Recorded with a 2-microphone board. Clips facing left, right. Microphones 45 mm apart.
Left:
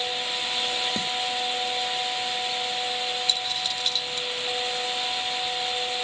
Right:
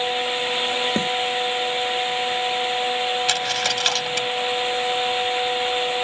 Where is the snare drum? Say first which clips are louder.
Right 7 dB; 40° right (ahead or behind).